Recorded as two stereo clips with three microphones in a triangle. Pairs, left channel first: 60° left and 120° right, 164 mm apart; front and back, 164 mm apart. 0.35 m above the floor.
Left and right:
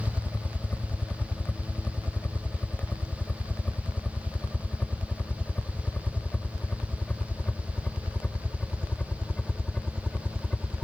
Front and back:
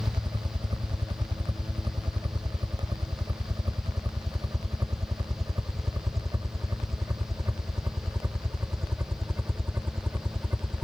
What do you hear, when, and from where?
0.0 s a helicopter: 135° left